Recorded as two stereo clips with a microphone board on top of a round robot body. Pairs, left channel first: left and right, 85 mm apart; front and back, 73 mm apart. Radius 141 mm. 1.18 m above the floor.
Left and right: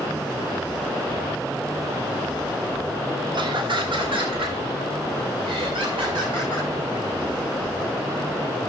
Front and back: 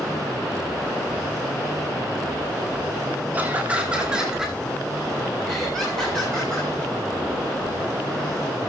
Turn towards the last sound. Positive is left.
turn(degrees=-80)